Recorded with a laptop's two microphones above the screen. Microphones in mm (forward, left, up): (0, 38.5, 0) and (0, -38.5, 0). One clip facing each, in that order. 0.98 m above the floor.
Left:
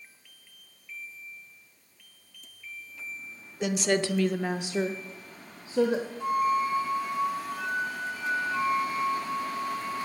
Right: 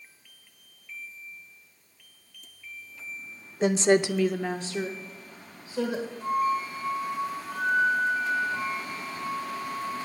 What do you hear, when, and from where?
3.6 s a woman speaking: 35° right (ahead or behind), 0.7 m; by 6.1 s 35° left (ahead or behind), 1.7 m
6.2 s a flute: 80° left, 2.5 m